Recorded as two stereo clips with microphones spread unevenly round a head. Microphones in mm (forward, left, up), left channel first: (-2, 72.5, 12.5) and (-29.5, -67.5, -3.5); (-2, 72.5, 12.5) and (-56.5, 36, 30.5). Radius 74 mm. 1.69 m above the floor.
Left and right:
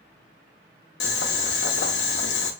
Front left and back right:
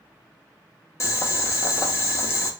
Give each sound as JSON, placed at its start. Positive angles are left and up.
{"t": 1.0, "sound": "boiling", "azimuth_deg": 80, "distance_m": 0.6}